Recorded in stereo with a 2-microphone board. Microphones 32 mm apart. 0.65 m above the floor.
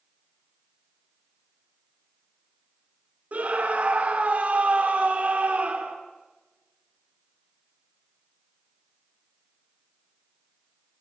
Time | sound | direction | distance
3.3 | a scream | 60° right (ahead or behind) | 1.9 m